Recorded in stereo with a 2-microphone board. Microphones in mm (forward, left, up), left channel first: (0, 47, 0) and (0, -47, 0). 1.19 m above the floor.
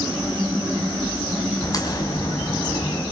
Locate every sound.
1.6 s a crack: 40° left (ahead or behind), 5 m